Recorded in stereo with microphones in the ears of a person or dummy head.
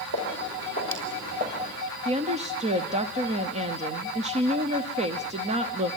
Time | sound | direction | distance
0.1 | footsteps | 65° right (ahead or behind) | 4.5 m
2.0 | a woman speaking | 35° right (ahead or behind) | 0.7 m